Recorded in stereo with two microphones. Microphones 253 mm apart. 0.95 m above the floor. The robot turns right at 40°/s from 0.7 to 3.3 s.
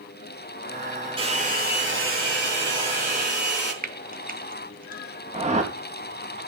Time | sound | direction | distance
1.2 | a hair dryer | 160° right | 5.5 m
3.8 | frying | 35° right (ahead or behind) | 0.8 m
5.3 | a whoosh | 30° right (ahead or behind) | 1.5 m